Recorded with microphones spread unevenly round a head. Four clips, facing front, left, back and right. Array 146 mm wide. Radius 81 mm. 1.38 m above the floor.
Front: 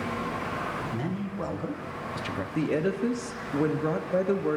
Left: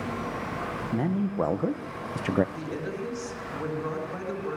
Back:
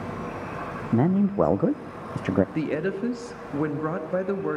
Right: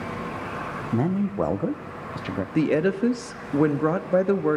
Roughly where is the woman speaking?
Right.